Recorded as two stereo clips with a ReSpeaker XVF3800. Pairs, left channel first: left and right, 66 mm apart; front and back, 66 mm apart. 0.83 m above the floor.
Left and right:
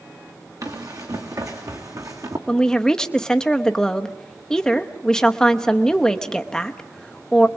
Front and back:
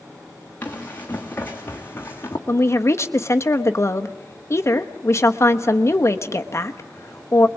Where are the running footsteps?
65° right, 4 m; by 2.4 s 55° right, 3 m.